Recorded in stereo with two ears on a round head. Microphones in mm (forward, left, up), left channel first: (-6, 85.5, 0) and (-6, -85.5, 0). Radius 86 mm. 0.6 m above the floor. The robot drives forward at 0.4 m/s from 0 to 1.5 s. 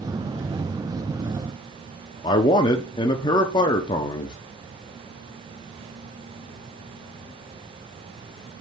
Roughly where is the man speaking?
Left.